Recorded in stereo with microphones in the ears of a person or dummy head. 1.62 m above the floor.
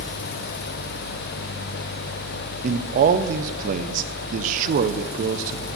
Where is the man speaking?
40° right (ahead or behind), 0.8 m.